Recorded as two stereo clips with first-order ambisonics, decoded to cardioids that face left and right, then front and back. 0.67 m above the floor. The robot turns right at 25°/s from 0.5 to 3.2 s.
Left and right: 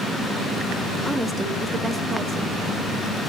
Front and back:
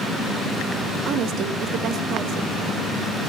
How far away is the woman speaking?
About 0.9 m.